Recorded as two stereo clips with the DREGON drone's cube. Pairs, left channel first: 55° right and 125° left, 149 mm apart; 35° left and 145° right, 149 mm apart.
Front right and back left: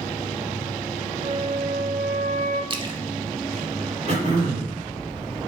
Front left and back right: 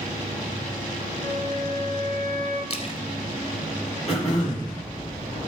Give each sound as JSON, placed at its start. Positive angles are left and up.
{"t": 1.2, "sound": "a flute", "azimuth_deg": 85, "distance_m": 3.0}
{"t": 2.7, "sound": "a splash", "azimuth_deg": 75, "distance_m": 1.0}
{"t": 4.1, "sound": "throat clearing", "azimuth_deg": 85, "distance_m": 5.5}